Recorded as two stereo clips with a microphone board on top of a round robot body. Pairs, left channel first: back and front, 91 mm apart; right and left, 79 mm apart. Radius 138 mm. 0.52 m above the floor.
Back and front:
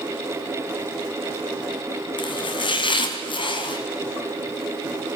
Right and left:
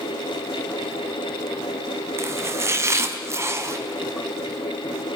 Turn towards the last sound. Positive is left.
turn(degrees=145)